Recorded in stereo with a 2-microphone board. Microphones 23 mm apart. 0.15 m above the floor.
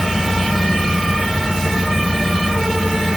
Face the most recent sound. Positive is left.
No sound to turn to.